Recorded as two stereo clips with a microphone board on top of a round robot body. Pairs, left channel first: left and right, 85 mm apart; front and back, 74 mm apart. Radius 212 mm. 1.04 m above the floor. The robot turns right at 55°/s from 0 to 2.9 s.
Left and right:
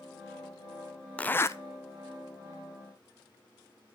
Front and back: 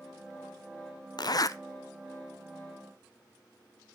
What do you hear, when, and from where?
1.2 s a zipper: 15° left, 0.7 m; by 1.6 s 40° left, 0.7 m